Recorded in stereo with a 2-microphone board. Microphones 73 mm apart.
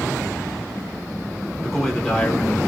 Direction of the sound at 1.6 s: 5° left (ahead or behind).